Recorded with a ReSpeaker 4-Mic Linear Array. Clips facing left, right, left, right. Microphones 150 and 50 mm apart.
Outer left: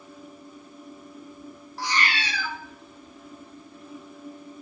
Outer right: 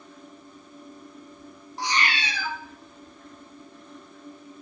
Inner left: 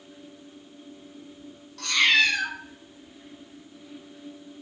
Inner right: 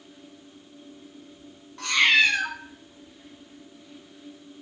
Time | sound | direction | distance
1.8 | a cat meowing | 20° right (ahead or behind) | 0.6 m